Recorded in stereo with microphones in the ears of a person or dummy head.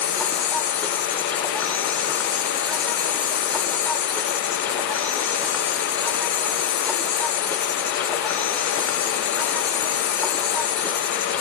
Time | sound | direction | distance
0.0 | an insect | 10° left (ahead or behind) | ?